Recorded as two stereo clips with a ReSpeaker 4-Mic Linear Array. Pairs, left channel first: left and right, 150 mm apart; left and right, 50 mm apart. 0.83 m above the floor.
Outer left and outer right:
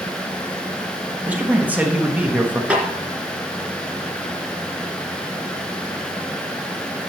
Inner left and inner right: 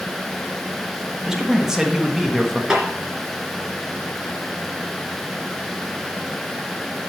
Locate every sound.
1.3 s a man speaking: 10° right (ahead or behind), 1.3 m
2.7 s a snare drum: 10° right (ahead or behind), 2.5 m